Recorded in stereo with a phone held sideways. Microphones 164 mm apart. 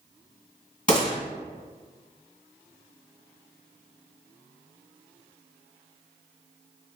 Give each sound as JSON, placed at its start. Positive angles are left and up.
{"t": 0.9, "sound": "a gunshot", "side_deg": 50, "distance_m": 1.6}